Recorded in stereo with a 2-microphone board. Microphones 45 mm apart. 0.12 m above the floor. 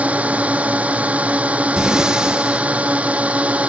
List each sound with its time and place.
0.0 s a drone: 30° right (ahead or behind)
1.8 s breathing: 15° right (ahead or behind)